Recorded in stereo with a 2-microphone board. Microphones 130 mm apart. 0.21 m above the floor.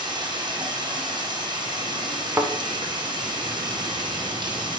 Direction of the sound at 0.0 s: 35° right (ahead or behind).